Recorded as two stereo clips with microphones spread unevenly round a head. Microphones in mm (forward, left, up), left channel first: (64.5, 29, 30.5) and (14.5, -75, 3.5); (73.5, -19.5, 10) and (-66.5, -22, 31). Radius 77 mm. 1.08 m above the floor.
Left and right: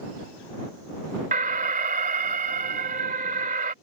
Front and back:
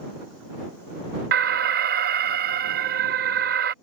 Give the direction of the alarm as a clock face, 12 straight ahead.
5 o'clock.